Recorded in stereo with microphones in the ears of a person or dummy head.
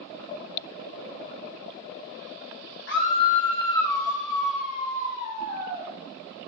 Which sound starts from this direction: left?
A scream, at 2.9 s.